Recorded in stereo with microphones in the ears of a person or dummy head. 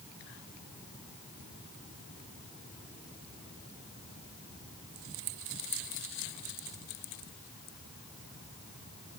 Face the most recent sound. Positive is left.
No sound to turn to.